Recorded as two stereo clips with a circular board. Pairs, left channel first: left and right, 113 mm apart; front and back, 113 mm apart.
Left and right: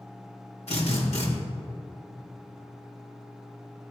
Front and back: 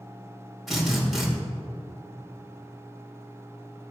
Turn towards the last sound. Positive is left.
turn(degrees=90)